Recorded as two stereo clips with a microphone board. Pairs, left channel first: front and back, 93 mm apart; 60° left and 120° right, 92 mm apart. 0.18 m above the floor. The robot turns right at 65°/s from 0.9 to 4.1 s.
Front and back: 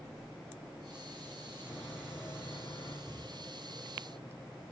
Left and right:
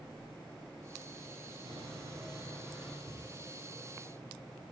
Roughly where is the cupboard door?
Behind right.